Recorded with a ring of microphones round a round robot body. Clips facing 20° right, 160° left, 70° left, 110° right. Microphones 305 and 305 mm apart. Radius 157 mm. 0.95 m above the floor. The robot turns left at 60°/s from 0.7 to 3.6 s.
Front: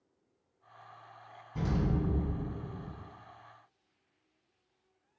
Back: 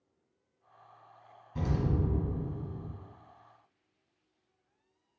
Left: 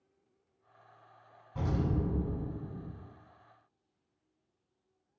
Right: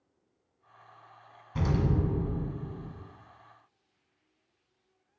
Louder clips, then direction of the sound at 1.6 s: Even, right 4 dB; 125° right.